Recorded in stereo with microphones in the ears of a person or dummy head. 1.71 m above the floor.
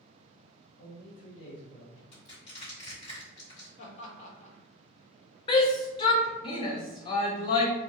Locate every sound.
0.8 s a man speaking: 60° left (ahead or behind), 0.6 m; by 2.0 s 30° left (ahead or behind), 0.8 m
2.1 s crushing: 65° left (ahead or behind), 1.4 m
3.8 s laughter: 50° left (ahead or behind), 0.7 m
5.5 s a shout: 30° left (ahead or behind), 0.5 m